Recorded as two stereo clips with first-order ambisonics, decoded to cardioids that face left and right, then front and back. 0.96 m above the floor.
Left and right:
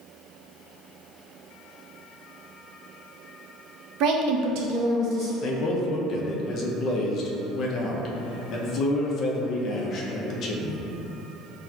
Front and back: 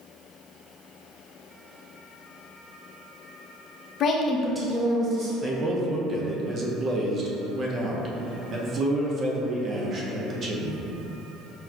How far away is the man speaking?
About 0.5 m.